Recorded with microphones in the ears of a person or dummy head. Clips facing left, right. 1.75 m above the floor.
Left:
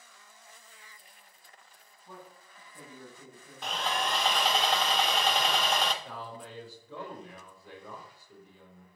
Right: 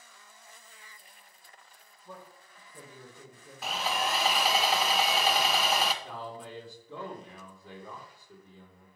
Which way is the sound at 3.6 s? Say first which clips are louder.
Right 1 dB; 10° right (ahead or behind).